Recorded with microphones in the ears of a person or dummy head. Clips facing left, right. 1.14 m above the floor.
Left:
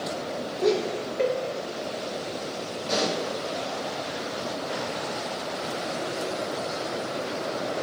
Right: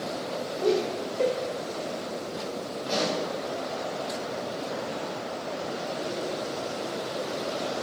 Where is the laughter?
30° left (ahead or behind), 2 m.